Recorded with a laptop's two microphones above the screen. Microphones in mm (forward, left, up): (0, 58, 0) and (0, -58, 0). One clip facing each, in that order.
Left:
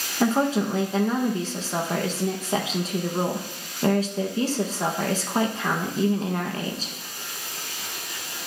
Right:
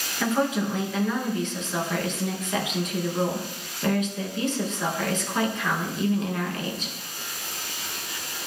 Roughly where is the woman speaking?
Left.